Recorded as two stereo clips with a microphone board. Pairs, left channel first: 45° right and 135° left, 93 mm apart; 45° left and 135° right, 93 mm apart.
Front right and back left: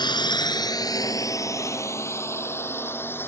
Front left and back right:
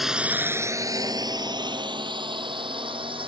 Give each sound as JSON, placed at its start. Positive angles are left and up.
{"t": 0.0, "sound": "a drone", "azimuth_deg": -45}